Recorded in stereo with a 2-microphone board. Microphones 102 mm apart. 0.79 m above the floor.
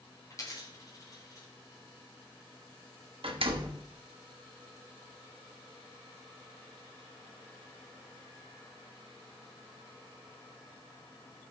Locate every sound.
0.3 s a dropped coin: 30° left (ahead or behind), 2 m
3.2 s a door slam: 60° right (ahead or behind), 1.0 m